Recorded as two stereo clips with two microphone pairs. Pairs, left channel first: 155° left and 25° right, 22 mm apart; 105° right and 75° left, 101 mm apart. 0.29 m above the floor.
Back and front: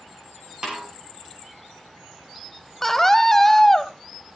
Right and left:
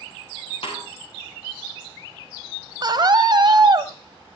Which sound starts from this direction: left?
A scream, at 2.8 s.